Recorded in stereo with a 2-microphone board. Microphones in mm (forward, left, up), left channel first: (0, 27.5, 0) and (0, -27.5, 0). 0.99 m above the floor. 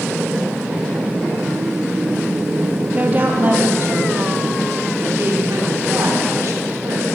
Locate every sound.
2.9 s a woman speaking: 30° right (ahead or behind), 1.4 m; by 7.1 s 65° right (ahead or behind), 3 m